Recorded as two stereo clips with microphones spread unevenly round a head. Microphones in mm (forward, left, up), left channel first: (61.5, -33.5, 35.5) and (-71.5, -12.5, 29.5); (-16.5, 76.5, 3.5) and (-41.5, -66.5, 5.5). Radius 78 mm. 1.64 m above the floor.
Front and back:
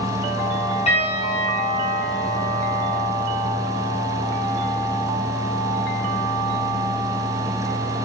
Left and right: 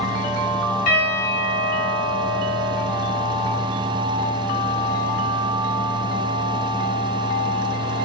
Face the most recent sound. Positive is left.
turn(degrees=40)